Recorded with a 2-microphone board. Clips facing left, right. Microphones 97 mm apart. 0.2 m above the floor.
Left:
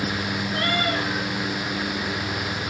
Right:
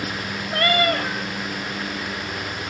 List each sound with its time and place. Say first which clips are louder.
0.5 s a cat meowing: right 6 dB; 80° right, 1.7 m